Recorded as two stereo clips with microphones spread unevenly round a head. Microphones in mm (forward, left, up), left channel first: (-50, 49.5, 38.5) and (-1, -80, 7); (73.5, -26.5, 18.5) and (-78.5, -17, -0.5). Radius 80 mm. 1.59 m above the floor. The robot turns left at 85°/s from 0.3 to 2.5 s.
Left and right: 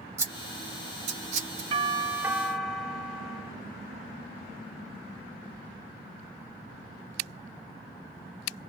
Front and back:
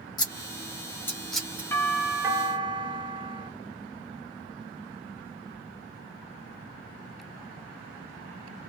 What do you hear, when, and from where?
0.2 s scissors: 15° left, 1.1 m; by 1.6 s 100° right, 1.1 m
1.7 s a doorbell: 80° right, 0.9 m; by 3.5 s 145° right, 0.9 m